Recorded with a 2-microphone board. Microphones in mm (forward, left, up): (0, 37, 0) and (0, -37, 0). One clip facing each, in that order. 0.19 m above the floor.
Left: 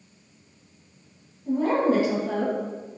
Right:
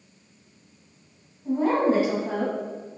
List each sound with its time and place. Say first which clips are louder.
1.4 s a woman speaking: even; 20° right (ahead or behind), 1.5 m